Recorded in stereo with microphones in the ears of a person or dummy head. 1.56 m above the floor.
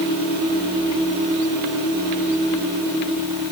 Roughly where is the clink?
I don't hear a clink.